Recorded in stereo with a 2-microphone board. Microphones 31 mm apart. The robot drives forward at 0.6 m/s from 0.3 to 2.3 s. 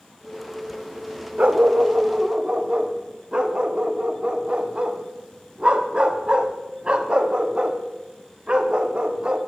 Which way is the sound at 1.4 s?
55° right (ahead or behind).